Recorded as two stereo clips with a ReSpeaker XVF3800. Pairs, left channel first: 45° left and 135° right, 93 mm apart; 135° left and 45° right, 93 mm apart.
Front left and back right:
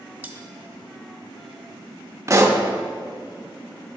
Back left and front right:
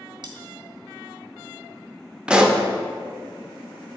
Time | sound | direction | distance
0.2 | cutlery clinking | 65° right | 0.7 m
2.3 | a pop | 120° right | 0.5 m